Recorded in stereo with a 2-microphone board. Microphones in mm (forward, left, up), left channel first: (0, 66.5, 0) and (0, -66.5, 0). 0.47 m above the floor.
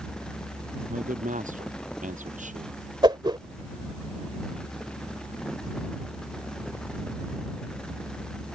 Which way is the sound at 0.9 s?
75° right (ahead or behind).